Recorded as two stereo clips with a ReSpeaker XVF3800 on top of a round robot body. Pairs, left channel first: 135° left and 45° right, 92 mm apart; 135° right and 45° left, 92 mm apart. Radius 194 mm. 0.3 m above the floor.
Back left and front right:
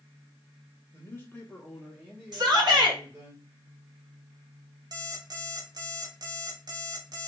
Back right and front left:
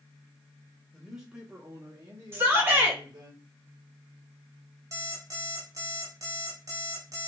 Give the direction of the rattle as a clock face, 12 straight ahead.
I don't hear a rattle.